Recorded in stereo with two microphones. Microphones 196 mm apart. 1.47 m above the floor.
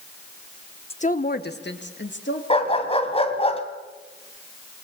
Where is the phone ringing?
I don't hear a phone ringing.